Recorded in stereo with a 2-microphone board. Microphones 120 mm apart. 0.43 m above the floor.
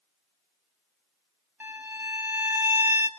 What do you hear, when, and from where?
1.6 s a violin: 15° right (ahead or behind), 3 m